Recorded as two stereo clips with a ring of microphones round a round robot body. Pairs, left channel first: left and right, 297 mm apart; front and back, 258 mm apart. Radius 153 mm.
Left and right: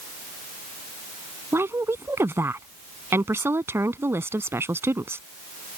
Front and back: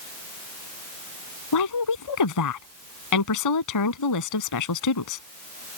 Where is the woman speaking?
5° right.